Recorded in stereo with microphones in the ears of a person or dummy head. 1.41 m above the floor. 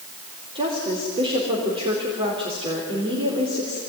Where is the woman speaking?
20° right (ahead or behind), 4 m.